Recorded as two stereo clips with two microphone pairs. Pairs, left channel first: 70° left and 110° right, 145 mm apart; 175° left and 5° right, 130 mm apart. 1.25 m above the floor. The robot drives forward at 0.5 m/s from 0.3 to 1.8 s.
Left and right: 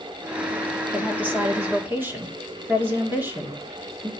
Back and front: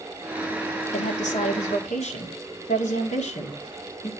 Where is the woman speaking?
170° left, 1.3 m; by 4.1 s 175° left, 1.7 m.